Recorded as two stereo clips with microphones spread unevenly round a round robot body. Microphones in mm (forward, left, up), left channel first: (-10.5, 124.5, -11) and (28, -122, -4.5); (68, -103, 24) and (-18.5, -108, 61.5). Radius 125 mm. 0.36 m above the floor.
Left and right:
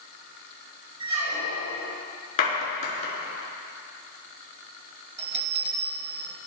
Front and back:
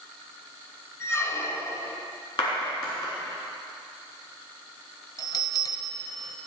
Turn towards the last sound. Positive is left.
turn(degrees=-15)